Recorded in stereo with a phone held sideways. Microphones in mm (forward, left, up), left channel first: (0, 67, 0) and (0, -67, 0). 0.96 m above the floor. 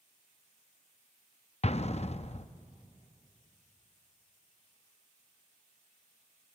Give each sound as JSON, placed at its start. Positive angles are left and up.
{"t": 1.6, "sound": "an explosion", "side_deg": 50, "distance_m": 0.5}